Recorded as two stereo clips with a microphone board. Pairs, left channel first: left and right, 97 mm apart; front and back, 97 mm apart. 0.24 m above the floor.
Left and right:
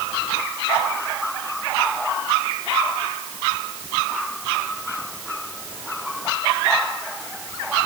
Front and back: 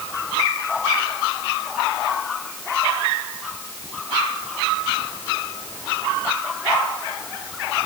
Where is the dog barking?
I don't hear a dog barking.